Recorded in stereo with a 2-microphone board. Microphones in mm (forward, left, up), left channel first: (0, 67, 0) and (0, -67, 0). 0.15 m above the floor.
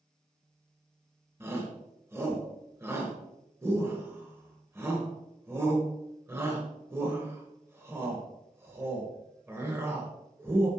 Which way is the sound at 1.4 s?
15° right (ahead or behind).